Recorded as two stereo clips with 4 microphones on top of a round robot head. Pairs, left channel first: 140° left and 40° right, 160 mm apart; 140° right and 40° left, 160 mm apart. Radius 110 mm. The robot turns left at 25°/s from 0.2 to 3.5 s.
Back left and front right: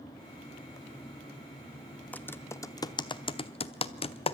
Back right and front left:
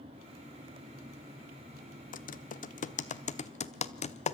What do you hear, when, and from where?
2.1 s typing on a keyboard: 140° right, 0.9 m; by 4.3 s 175° right, 0.9 m